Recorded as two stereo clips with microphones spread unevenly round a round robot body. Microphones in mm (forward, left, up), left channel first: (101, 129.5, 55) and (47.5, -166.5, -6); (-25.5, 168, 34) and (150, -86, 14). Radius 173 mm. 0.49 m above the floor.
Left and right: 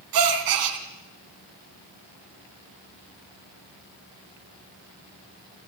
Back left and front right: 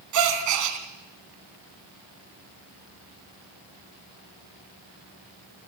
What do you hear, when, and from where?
0.1 s a gasp: 95° right, 2.5 m